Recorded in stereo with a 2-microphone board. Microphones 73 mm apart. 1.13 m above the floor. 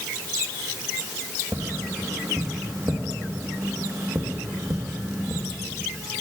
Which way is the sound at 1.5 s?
50° right (ahead or behind).